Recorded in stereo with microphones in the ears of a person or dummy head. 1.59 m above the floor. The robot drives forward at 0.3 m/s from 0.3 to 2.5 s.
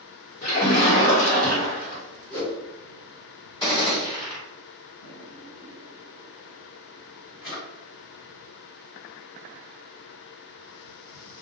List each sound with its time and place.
0.4 s a splash: 45° left (ahead or behind), 0.9 m; by 2.0 s 30° left (ahead or behind), 1.3 m
2.3 s a whoosh: 20° left (ahead or behind), 1.4 m
3.6 s a gunshot: 20° left (ahead or behind), 1.7 m
5.0 s a drawer: 50° left (ahead or behind), 1.5 m